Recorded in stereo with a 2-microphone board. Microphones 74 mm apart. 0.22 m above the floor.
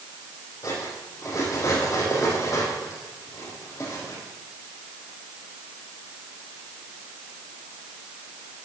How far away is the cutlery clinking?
About 6 m.